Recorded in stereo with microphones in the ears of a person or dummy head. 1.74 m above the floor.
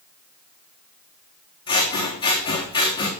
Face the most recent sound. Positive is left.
turn(degrees=25)  # may be behind; listen again after turning